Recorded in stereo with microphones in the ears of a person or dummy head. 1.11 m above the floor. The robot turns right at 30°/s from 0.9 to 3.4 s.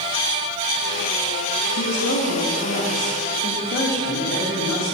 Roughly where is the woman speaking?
Left.